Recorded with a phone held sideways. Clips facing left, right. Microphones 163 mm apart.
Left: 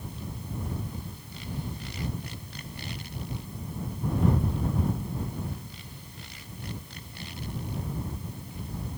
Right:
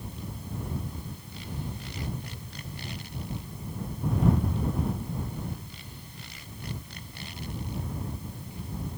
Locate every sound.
Only background noise.